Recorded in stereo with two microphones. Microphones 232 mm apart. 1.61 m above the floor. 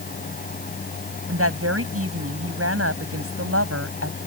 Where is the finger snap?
I don't hear a finger snap.